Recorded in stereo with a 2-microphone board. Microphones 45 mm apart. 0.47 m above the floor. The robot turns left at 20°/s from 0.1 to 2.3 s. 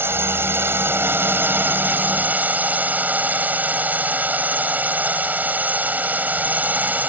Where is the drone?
90° right; by 7.1 s 135° right.